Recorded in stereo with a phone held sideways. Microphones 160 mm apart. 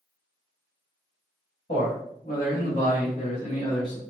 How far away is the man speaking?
About 1.5 m.